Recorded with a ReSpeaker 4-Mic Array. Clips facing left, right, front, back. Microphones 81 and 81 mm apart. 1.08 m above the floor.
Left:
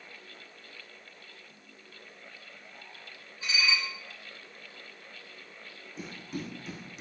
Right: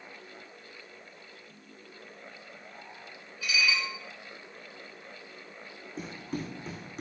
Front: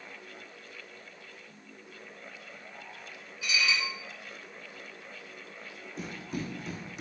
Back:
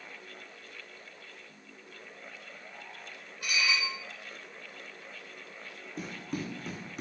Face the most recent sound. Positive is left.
turn(degrees=-140)